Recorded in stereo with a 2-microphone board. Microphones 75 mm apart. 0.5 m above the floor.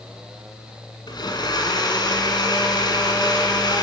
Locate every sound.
1.1 s a blender: 80° left, 2.5 m